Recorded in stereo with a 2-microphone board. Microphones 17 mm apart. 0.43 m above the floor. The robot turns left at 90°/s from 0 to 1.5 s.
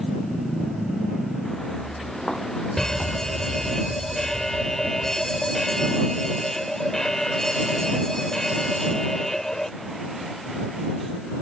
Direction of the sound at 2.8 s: 30° left (ahead or behind).